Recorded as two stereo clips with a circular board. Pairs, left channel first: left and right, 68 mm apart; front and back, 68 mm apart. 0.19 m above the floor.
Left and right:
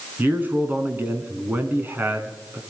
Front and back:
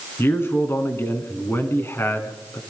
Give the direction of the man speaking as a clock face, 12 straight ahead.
1 o'clock.